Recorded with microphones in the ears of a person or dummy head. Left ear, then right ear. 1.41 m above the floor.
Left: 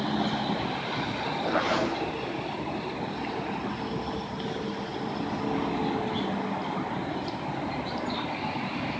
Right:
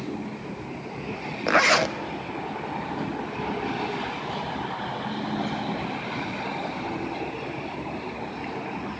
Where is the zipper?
65° right (ahead or behind), 0.9 m.